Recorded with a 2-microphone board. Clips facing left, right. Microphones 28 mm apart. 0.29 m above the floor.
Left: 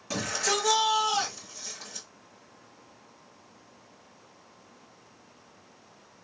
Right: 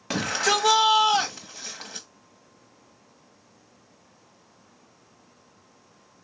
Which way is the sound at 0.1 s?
50° right (ahead or behind).